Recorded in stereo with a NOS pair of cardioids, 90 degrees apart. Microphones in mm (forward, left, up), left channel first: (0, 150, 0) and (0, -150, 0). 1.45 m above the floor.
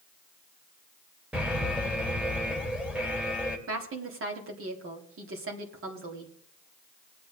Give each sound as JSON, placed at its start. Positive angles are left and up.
{"t": 1.3, "sound": "an alarm", "azimuth_deg": -5, "distance_m": 2.5}
{"t": 3.7, "sound": "a woman speaking", "azimuth_deg": -50, "distance_m": 3.5}